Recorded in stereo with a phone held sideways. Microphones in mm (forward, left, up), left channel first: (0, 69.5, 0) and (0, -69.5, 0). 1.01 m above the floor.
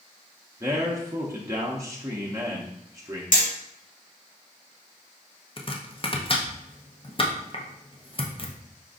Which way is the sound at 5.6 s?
40° left (ahead or behind).